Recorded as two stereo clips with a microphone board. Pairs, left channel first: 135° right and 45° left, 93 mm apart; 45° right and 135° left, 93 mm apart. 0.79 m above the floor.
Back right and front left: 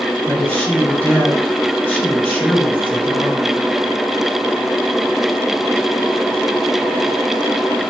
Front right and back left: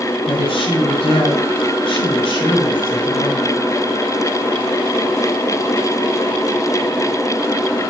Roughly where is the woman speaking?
Ahead right.